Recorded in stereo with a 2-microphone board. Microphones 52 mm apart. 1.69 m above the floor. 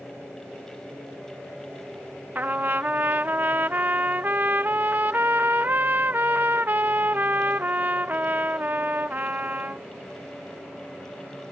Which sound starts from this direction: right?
A trumpet, at 2.4 s.